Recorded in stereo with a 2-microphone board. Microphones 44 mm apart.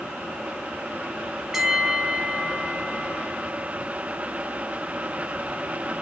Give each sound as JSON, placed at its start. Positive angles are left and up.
{"t": 1.5, "sound": "a bell", "side_deg": -10, "distance_m": 1.5}